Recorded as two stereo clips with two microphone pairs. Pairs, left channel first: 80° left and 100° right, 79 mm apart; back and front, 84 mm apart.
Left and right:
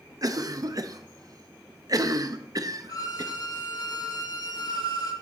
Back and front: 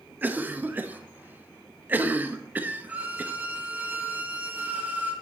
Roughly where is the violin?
Left.